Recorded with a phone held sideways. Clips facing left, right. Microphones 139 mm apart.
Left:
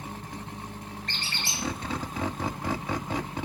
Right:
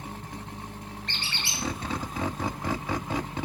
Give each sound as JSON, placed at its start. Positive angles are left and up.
{"t": 1.1, "sound": "a squeak", "side_deg": 45, "distance_m": 1.8}